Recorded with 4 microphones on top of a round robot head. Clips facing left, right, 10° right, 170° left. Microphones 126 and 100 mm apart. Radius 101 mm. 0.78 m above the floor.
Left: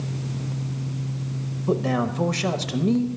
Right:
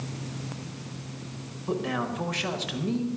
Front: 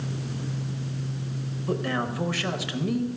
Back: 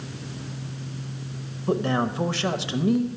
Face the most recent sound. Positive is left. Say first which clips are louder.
# left 6 dB, back 4 dB
turn(degrees=120)